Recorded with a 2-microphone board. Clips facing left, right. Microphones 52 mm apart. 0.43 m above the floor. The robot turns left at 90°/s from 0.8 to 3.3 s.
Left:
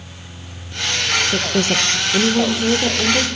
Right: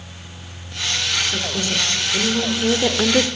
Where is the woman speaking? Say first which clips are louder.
Left 5 dB; 120° left, 1.1 m; by 3.3 s 55° right, 1.1 m.